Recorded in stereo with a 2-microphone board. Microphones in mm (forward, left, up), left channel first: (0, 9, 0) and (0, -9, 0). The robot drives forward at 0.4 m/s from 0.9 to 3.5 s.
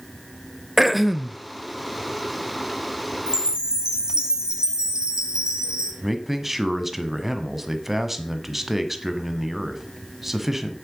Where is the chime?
50° right (ahead or behind), 2.5 m.